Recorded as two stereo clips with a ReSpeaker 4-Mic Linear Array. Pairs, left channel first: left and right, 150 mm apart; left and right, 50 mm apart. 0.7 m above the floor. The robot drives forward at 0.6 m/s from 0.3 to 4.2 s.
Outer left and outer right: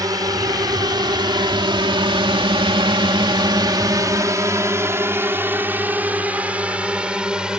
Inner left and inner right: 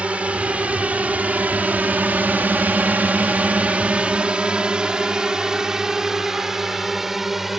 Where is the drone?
25° right (ahead or behind); by 7.6 s 5° right (ahead or behind).